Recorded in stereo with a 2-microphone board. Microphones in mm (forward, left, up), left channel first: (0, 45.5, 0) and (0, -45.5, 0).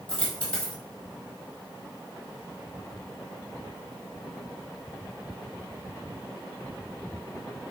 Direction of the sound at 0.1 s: 15° left (ahead or behind).